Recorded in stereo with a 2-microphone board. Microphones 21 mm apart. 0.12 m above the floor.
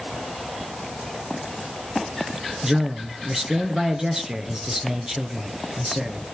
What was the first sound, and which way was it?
A man speaking, 30° right (ahead or behind).